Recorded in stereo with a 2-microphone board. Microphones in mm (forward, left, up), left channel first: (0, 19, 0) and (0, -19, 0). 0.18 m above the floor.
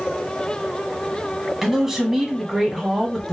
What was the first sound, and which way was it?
A man speaking, 15° right (ahead or behind).